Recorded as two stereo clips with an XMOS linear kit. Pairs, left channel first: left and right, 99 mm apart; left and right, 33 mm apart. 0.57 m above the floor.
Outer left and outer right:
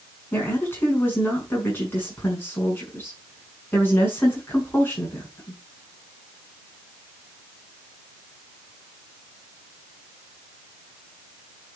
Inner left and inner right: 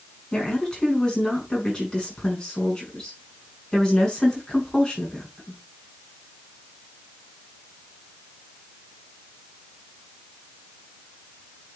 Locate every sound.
0.3 s a woman speaking: 25° left (ahead or behind), 6 m